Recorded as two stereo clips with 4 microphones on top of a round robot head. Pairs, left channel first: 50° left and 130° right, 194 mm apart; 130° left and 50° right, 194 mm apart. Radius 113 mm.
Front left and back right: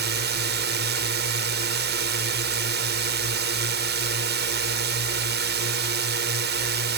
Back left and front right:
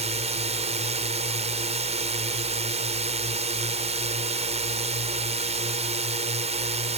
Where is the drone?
105° right.